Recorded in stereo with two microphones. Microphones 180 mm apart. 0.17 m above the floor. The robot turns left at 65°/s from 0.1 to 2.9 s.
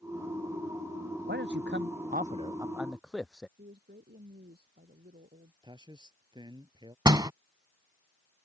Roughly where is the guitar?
No guitar in this recording.